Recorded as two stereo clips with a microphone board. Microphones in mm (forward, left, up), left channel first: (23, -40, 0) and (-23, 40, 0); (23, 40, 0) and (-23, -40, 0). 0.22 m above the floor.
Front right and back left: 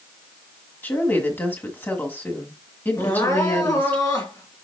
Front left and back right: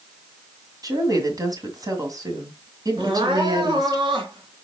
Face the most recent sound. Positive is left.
turn(degrees=-105)